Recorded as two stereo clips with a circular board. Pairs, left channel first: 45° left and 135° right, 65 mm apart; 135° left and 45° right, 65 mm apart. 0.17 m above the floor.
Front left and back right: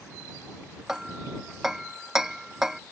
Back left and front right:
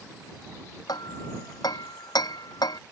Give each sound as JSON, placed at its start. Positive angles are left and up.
{"t": 0.9, "sound": "hammering", "azimuth_deg": 145}